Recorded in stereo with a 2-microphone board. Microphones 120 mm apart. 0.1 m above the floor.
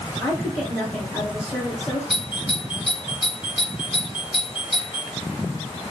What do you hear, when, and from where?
0.2 s a woman speaking: 10° left (ahead or behind), 2.5 m
2.1 s a doorbell: centre (ahead or behind), 3 m